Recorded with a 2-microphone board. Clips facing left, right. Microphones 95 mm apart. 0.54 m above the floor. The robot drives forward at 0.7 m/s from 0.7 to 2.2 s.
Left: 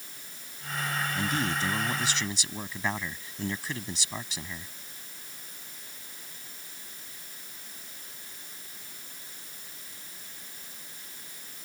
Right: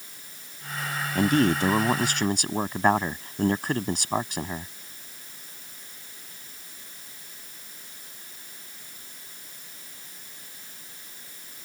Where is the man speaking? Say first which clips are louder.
Right 12 dB; 60° right (ahead or behind); by 4.7 s 55° right (ahead or behind).